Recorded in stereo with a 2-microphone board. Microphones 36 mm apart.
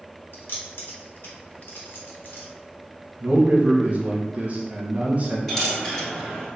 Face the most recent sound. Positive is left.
turn(degrees=15)  # may be behind; listen again after turning